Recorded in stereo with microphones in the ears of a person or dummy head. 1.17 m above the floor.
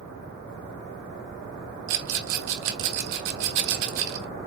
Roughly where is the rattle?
Right.